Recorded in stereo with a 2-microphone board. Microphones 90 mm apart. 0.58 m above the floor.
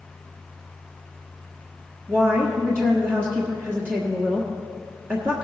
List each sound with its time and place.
2.1 s a woman speaking: 25° right (ahead or behind), 1.4 m